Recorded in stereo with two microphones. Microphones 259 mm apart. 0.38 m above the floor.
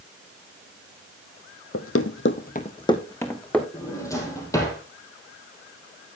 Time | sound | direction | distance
1.7 | running footsteps | 60° left (ahead or behind) | 0.9 m
3.7 | a drawer | 15° left (ahead or behind) | 3.5 m